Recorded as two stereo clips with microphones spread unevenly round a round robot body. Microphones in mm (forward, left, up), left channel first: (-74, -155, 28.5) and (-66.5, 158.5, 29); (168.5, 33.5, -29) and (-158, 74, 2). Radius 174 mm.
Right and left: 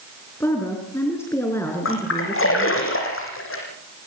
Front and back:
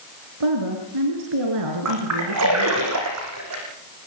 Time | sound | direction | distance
0.4 | a woman speaking | 175° right | 5 m
1.9 | a splash | 140° right | 7 m